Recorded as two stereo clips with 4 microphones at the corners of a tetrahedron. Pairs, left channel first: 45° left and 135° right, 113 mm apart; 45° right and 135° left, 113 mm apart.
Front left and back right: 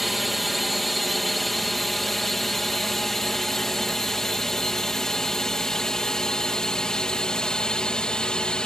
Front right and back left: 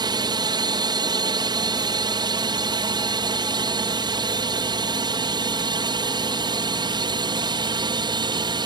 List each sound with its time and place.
0.0 s a drone: 135° left; by 8.7 s 125° left